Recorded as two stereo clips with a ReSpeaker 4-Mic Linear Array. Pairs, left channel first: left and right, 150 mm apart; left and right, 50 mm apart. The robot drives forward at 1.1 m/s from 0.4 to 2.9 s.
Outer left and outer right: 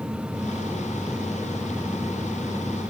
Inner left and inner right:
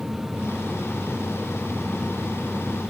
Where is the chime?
No chime in this recording.